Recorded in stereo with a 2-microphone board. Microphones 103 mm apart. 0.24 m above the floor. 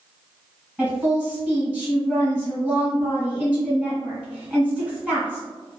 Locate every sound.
0.8 s a woman speaking: 10° right (ahead or behind), 1.9 m